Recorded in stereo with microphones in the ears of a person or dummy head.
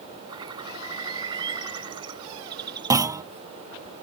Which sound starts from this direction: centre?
A clunk, at 2.9 s.